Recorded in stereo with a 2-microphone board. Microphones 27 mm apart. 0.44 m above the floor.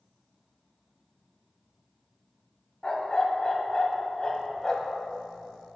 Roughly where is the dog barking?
Left.